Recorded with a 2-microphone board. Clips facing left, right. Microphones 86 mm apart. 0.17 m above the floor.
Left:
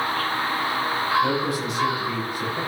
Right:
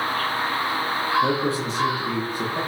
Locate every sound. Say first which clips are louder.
1.2 s a man speaking: right 1 dB; 30° right (ahead or behind), 4.5 m; by 2.6 s 40° right (ahead or behind), 5 m